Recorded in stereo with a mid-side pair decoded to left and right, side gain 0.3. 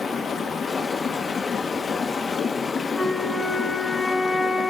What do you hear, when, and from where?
0.0 s running water: 65° left, 1.4 m
2.9 s a flute: 55° left, 5 m